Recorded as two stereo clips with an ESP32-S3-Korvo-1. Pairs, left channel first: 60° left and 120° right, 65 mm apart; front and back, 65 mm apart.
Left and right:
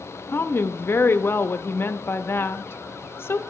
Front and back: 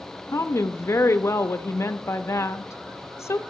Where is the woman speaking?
20° left, 0.6 m.